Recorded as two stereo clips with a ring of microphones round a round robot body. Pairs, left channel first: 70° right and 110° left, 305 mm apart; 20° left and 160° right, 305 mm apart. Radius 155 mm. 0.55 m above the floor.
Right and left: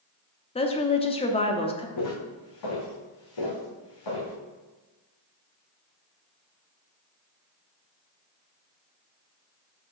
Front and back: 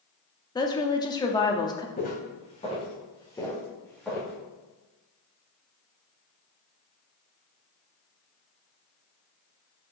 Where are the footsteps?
40° right, 2.5 m; by 4.3 s 70° right, 3.5 m.